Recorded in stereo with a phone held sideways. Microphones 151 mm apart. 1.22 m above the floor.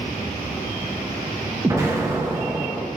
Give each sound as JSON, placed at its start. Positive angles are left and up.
{"t": 1.6, "sound": "an explosion", "side_deg": -20, "distance_m": 0.9}